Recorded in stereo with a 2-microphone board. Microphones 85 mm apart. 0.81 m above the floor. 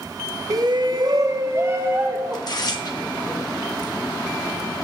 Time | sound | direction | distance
0.5 | a shout | 45° right (ahead or behind) | 0.7 m
2.3 | tearing paper | 55° left (ahead or behind) | 2 m